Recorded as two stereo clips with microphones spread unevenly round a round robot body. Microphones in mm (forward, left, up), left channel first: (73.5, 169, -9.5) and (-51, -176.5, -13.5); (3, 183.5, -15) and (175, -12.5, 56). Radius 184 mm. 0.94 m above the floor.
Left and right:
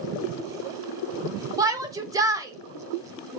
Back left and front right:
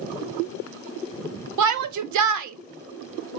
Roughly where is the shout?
Ahead right.